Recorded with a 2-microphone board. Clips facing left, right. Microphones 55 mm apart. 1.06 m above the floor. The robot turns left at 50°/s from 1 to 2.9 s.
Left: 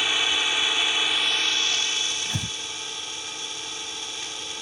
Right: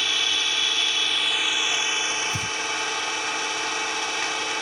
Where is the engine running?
10° left; by 4.6 s 85° right.